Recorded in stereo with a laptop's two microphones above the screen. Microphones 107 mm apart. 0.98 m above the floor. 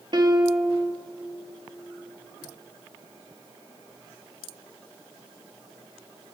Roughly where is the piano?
Right.